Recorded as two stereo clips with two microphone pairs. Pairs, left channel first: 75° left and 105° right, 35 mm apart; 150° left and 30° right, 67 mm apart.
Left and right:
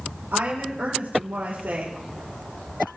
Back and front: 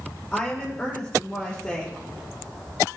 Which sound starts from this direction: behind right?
A woman speaking, at 0.3 s.